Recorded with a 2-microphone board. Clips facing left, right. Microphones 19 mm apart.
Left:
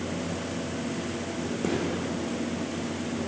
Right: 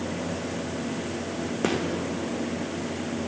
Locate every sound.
1.6 s a gunshot: 45° right (ahead or behind), 0.6 m